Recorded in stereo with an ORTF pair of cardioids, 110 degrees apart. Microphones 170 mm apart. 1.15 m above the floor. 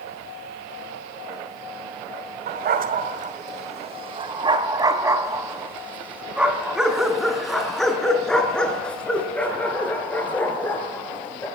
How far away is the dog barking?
About 2.5 m.